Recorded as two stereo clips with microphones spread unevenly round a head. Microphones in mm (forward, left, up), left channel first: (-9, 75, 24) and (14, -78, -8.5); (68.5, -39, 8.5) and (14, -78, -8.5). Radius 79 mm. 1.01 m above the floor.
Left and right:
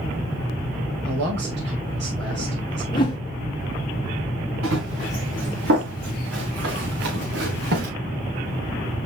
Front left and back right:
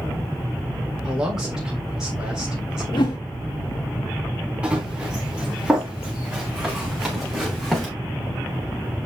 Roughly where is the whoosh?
Ahead left.